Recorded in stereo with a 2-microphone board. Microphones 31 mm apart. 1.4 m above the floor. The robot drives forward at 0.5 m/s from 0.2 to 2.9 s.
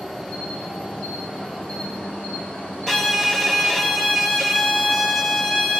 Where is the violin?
10° left (ahead or behind), 0.6 m.